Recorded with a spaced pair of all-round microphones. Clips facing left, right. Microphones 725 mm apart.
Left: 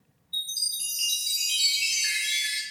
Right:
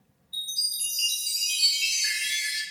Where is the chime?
5° right (ahead or behind), 1.3 m.